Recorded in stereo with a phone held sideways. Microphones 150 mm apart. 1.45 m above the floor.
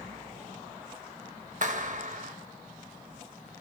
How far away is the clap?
About 1.9 m.